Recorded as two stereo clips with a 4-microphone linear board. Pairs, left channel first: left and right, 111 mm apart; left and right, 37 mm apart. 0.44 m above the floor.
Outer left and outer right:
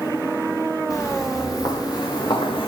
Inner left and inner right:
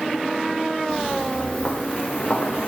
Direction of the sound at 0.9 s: 25° left (ahead or behind).